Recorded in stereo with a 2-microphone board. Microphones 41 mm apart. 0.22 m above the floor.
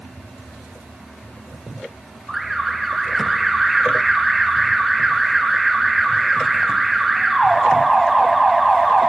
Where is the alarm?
Centre (ahead or behind), 1.2 m.